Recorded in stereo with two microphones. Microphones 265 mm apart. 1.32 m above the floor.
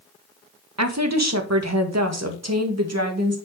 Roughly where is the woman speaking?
Right.